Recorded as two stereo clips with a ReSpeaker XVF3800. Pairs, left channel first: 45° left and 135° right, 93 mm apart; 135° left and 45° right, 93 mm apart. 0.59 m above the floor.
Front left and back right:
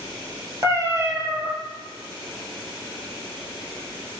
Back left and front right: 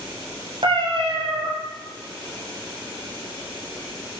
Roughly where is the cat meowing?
Right.